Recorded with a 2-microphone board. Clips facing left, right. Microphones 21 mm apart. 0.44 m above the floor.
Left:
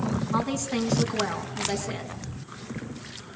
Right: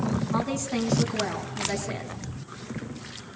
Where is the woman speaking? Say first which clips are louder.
Left 1 dB; 5° left (ahead or behind), 5 m.